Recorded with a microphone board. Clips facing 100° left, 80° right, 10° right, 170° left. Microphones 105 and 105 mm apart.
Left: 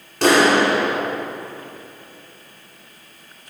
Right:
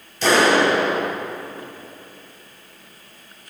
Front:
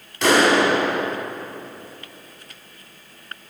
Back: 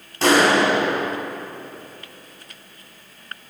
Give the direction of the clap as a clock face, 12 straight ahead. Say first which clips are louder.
Left 1 dB, even; 8 o'clock.